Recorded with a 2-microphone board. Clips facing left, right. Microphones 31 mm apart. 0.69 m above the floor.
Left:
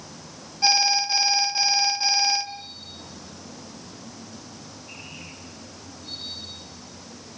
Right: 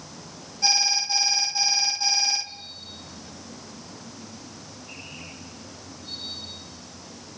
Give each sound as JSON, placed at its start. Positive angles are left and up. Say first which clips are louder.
{"t": 0.6, "sound": "an alarm", "louder": "left 3 dB", "side_deg": 25, "distance_m": 1.3}